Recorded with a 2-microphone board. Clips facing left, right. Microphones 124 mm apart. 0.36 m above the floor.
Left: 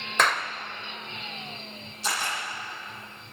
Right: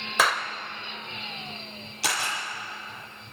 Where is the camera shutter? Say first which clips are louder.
Even; 80° right, 6.5 m.